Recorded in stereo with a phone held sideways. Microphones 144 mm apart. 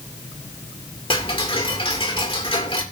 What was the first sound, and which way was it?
Ticking, 40° left (ahead or behind).